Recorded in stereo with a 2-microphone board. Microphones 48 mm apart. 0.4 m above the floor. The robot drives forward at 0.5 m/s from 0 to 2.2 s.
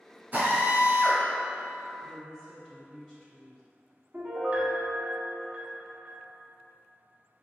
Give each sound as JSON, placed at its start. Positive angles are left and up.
{"t": 0.3, "sound": "a drill", "side_deg": -40, "distance_m": 1.8}
{"t": 2.0, "sound": "a woman speaking", "side_deg": -5, "distance_m": 1.8}
{"t": 4.1, "sound": "a piano", "side_deg": -35, "distance_m": 0.9}